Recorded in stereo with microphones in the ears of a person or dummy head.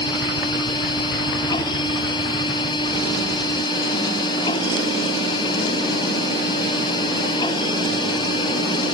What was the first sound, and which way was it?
A machine running, 25° left (ahead or behind).